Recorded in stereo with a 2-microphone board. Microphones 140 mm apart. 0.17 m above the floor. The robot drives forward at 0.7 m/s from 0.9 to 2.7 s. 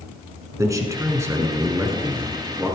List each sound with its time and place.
0.6 s a man speaking: 25° right (ahead or behind), 1.6 m; by 2.8 s 15° right (ahead or behind), 2.5 m